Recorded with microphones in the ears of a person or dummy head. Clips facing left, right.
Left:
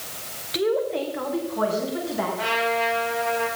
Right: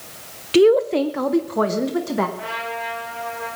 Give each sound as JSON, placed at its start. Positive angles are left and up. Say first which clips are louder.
{"t": 0.5, "sound": "a woman speaking", "louder": "right 9 dB", "side_deg": -50, "distance_m": 0.6}
{"t": 2.4, "sound": "a trumpet", "louder": "left 5 dB", "side_deg": 80, "distance_m": 7.0}